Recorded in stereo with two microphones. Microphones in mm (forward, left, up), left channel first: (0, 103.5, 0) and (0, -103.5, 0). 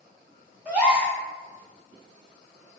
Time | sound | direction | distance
0.7 | a gasp | 5° right (ahead or behind) | 1.1 m